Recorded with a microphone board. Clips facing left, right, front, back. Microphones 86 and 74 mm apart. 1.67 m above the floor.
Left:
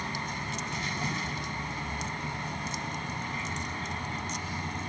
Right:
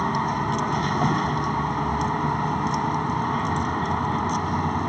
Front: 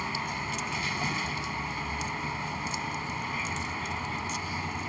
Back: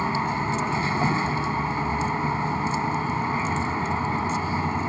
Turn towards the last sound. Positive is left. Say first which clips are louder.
# right 12 dB, back 9 dB
turn(degrees=-125)